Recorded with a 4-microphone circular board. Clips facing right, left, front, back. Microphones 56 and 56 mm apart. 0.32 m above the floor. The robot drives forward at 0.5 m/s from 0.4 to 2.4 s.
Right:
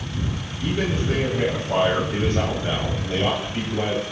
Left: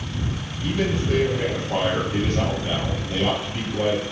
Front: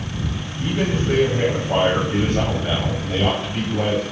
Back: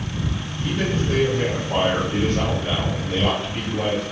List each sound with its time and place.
0.6 s a man speaking: 30° right, 1.5 m; by 4.0 s 80° right, 1.1 m